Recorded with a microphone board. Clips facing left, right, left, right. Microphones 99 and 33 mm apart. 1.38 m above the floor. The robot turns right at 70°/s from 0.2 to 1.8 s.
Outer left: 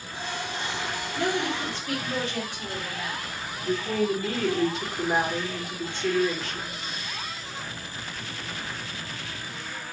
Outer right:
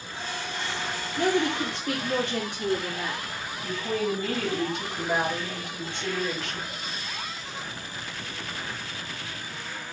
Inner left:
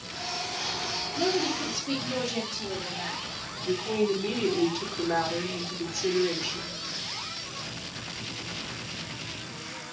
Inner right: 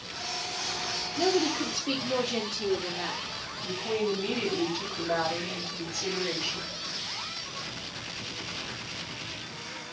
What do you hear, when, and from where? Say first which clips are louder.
1.2 s a woman speaking: outer right 3 dB, inner right 2 dB; 160° right, 2.5 m; by 3.2 s 120° right, 2.5 m
3.6 s a woman speaking: outer left 3 dB, inner left 3 dB; 70° right (ahead or behind), 3 m